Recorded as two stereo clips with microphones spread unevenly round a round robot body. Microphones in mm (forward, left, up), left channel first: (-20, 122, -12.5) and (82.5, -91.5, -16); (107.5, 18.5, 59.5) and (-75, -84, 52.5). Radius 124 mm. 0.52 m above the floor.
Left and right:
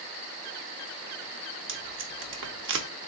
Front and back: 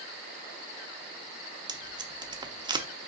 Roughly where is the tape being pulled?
Right.